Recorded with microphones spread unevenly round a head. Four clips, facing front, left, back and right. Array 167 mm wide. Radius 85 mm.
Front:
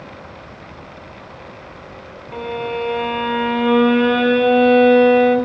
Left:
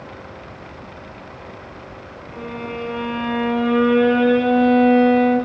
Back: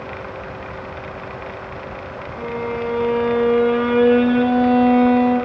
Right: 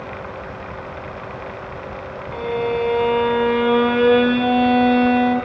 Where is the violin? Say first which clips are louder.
Right 8 dB, front 2 dB; 20° right, 2.5 m.